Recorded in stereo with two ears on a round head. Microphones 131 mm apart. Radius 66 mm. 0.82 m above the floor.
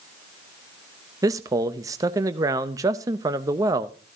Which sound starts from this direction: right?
A man speaking, at 1.2 s.